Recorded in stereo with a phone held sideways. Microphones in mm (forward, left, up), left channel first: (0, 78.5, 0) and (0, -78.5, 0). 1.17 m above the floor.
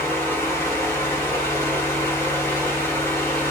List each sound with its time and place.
0.0 s a fan: 15° left (ahead or behind), 1.0 m